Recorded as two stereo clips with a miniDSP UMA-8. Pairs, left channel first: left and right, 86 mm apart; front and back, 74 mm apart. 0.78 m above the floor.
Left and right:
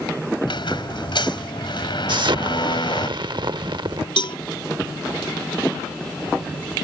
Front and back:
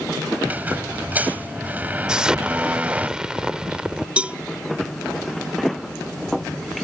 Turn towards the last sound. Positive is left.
turn(degrees=105)